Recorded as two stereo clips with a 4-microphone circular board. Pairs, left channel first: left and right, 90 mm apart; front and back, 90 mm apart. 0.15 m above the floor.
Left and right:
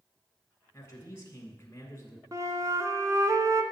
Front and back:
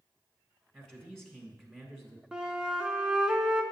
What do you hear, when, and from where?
0.7 s a man speaking: 85° left, 1.5 m
2.3 s a flute: 105° right, 0.7 m